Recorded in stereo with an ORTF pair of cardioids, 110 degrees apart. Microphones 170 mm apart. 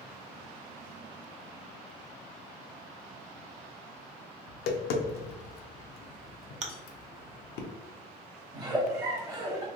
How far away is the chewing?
About 0.8 m.